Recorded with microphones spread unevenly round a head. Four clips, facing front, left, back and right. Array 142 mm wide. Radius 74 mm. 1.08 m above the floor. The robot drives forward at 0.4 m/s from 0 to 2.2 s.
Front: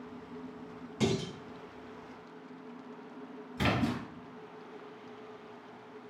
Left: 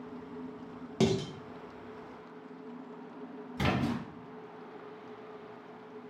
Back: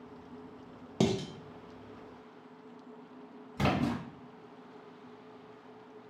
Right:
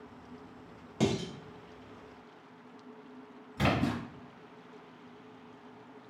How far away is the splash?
About 1.6 m.